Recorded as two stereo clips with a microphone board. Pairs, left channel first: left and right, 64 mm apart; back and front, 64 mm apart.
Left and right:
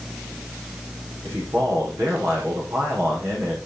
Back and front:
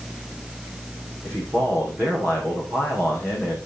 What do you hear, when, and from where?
1.2 s a man speaking: 45° right, 5 m